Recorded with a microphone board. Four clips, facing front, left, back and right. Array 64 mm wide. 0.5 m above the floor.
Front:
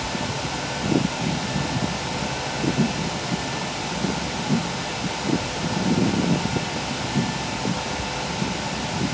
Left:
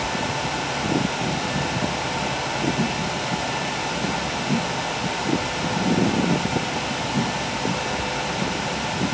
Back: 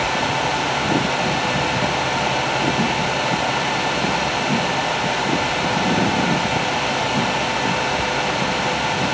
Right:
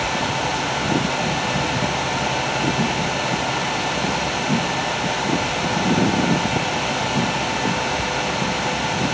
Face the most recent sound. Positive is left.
No sound to turn to.